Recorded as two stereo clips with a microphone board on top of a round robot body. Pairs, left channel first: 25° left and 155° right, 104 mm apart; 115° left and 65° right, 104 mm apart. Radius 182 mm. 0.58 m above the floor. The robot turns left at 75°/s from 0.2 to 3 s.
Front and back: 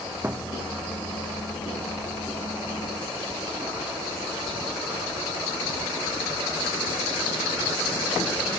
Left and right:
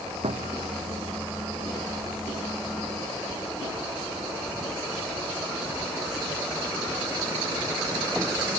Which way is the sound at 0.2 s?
85° right.